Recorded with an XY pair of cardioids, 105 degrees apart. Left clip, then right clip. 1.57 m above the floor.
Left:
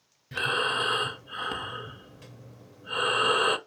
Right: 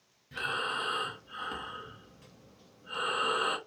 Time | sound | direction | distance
0.3 | breathing | 50° left | 0.5 m